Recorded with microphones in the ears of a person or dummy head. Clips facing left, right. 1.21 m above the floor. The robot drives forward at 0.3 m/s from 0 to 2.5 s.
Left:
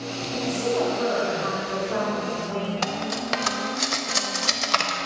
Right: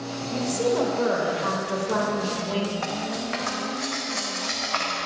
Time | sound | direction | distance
0.3 | a woman speaking | 80° right | 2 m
2.8 | cutlery clinking | 55° left (ahead or behind) | 0.7 m